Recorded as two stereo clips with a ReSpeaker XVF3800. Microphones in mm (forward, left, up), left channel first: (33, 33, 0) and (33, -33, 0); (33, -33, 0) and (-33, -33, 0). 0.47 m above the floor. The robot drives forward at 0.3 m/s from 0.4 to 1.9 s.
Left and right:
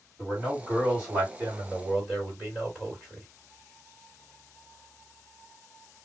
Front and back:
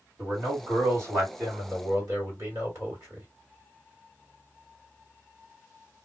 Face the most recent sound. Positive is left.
turn(degrees=-160)